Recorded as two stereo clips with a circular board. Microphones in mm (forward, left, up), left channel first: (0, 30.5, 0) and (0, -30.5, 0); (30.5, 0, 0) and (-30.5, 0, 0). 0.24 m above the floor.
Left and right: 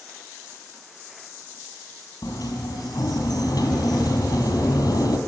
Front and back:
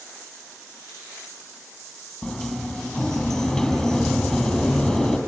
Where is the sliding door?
85° left, 3 m.